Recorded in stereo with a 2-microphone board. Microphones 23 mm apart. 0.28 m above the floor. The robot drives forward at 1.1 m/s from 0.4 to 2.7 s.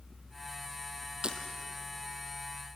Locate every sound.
1.2 s breaking glass: 35° right (ahead or behind), 2 m; by 1.4 s 40° right (ahead or behind), 2 m